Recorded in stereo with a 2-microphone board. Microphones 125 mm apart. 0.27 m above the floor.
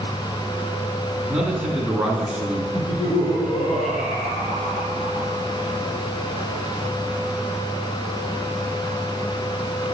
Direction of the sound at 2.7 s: 55° left (ahead or behind).